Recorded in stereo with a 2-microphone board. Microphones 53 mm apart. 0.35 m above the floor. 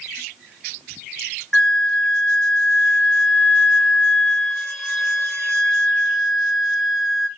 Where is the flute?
Centre (ahead or behind), 0.7 m.